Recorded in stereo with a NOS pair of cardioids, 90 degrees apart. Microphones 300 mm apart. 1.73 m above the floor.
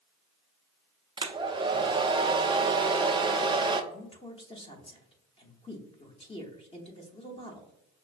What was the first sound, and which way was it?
A hair dryer, 15° right.